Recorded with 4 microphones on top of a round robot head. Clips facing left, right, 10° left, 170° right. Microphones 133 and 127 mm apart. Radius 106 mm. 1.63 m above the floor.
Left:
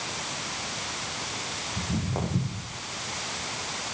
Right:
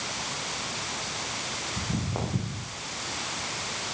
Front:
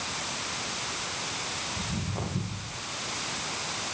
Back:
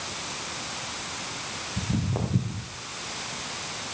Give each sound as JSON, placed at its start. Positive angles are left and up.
{"t": 1.8, "sound": "footsteps", "azimuth_deg": -175, "distance_m": 6.0}